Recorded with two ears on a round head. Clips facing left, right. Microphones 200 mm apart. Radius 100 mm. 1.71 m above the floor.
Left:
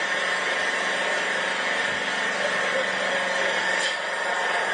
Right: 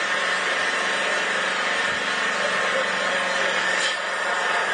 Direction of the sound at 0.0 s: 5° right (ahead or behind).